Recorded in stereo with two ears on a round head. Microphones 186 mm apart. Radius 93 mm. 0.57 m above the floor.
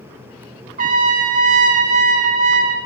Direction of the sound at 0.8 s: 35° right (ahead or behind).